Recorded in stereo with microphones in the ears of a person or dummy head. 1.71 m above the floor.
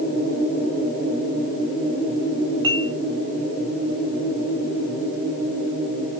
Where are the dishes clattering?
25° right (ahead or behind), 6 m.